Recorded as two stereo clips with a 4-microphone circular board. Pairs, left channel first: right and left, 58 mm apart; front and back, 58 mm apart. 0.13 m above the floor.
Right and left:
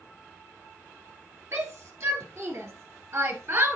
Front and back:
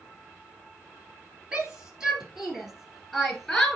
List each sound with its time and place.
1.5 s a shout: 110° left, 2.5 m; by 3.8 s 80° left, 1.8 m